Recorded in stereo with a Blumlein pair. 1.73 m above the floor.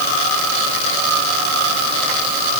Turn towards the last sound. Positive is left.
No sound to turn to.